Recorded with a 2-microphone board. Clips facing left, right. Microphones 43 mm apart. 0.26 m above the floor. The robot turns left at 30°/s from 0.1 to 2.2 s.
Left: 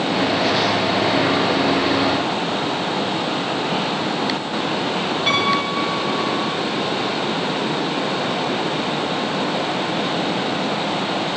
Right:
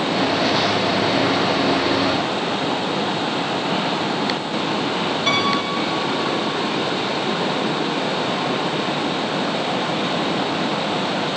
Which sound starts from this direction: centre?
A piano, at 5.3 s.